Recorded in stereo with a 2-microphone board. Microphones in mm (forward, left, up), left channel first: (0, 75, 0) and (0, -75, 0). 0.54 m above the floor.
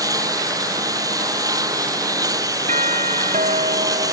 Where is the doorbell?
55° right (ahead or behind).